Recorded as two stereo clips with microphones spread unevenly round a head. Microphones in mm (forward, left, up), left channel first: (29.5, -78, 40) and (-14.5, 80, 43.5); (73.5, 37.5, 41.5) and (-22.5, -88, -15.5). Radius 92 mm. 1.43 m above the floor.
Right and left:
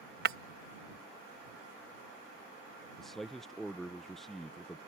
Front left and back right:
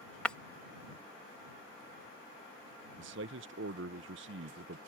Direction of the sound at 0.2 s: 110° left.